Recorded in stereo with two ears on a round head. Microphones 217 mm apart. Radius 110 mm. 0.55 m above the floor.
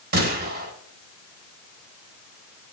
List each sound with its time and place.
0.1 s a gunshot: 45° right (ahead or behind), 3 m